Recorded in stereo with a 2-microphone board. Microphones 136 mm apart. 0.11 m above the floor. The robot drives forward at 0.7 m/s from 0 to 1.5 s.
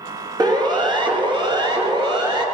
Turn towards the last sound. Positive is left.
turn(degrees=-35)  # may be behind; listen again after turning